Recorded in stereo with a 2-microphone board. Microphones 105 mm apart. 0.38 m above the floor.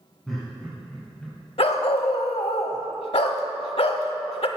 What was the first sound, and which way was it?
Laughter, 5° left (ahead or behind).